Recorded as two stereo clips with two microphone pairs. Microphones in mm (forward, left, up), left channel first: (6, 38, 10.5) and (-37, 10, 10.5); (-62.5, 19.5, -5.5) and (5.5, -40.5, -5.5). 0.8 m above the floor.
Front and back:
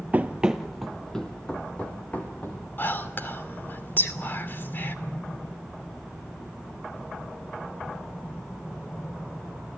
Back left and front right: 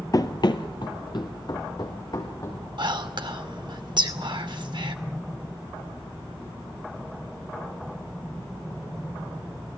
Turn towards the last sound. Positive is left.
turn(degrees=-15)